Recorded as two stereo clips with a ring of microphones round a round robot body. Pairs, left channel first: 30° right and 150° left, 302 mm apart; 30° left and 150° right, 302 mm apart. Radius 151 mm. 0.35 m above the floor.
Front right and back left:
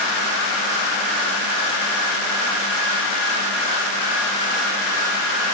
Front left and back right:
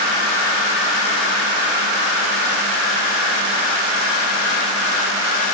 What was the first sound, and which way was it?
Only background noise.